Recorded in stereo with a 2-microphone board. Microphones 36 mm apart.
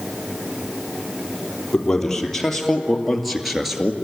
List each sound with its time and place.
1.7 s a man speaking: 10° left (ahead or behind), 3.5 m; by 4.0 s 10° right (ahead or behind), 2.0 m